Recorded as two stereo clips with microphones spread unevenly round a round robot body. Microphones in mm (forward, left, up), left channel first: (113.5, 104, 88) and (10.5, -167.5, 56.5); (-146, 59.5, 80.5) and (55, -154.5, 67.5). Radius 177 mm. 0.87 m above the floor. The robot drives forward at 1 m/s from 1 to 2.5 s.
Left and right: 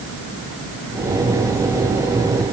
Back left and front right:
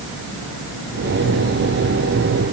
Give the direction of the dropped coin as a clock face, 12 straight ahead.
I don't hear a dropped coin.